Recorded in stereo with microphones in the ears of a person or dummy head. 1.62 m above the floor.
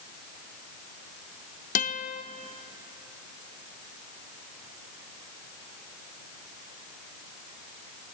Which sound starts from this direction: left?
A guitar, at 1.8 s.